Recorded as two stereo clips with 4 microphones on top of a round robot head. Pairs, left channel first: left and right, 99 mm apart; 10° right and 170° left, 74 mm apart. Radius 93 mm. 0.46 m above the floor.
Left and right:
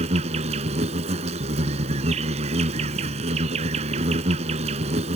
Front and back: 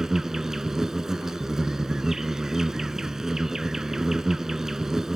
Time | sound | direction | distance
0.0 | an insect | 100° right | ?